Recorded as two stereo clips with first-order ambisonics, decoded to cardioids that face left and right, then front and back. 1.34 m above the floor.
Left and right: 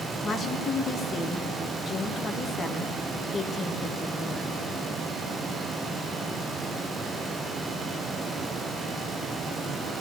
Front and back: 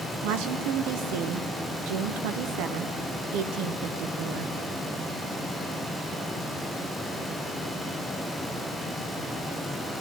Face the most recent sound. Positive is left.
turn(degrees=165)